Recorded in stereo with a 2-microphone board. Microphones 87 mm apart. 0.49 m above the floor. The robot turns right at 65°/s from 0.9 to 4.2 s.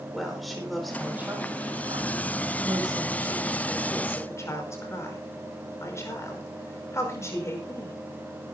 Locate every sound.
0.1 s a woman speaking: centre (ahead or behind), 5.5 m; by 8.0 s 35° left (ahead or behind), 5.5 m